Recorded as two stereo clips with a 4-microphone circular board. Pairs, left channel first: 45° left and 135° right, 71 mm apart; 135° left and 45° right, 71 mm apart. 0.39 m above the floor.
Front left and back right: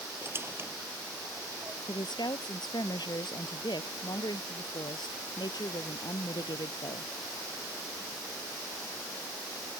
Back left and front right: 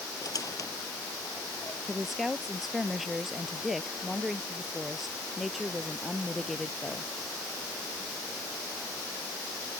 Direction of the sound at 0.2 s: 170° left.